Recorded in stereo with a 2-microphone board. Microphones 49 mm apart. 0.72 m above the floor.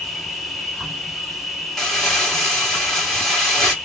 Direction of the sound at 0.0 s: Centre (ahead or behind).